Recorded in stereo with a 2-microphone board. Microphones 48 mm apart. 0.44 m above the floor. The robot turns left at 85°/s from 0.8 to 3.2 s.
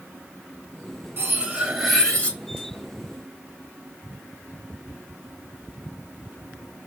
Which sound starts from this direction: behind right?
Cutlery clinking, at 1.2 s.